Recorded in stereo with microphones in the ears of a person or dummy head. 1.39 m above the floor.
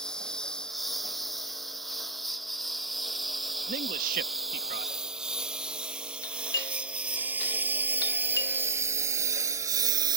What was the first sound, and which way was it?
A lawn mower, centre (ahead or behind).